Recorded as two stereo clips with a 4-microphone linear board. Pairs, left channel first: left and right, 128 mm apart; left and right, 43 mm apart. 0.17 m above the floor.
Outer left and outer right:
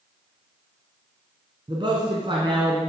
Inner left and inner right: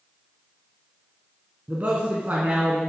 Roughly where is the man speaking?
Right.